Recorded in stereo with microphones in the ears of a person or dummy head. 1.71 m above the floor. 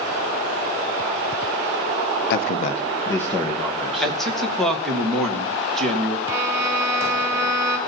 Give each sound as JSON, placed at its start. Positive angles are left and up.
{"t": 2.3, "sound": "a man speaking", "side_deg": 60, "distance_m": 1.0}
{"t": 4.0, "sound": "a man speaking", "side_deg": 10, "distance_m": 1.9}
{"t": 6.3, "sound": "a violin", "side_deg": -15, "distance_m": 4.0}